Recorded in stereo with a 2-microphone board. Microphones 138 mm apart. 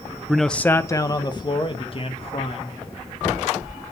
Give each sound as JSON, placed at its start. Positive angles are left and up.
{"t": 0.3, "sound": "a man speaking", "side_deg": -5, "distance_m": 0.6}